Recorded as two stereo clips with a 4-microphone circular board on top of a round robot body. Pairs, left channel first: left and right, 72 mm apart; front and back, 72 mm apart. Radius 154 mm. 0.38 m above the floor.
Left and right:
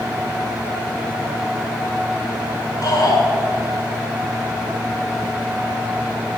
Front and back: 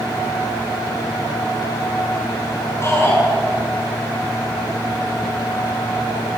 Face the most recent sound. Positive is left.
turn(degrees=55)